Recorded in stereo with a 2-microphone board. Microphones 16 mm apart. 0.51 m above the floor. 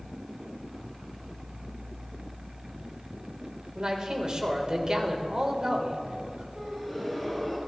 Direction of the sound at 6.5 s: 5° left (ahead or behind).